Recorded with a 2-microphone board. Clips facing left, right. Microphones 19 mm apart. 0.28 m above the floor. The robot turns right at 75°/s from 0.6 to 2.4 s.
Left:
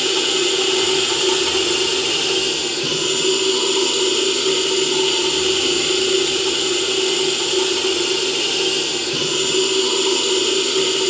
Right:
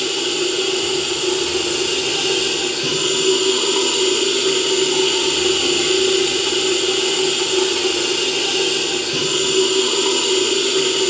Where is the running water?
85° left, 4 m; by 11.1 s 140° right, 4 m.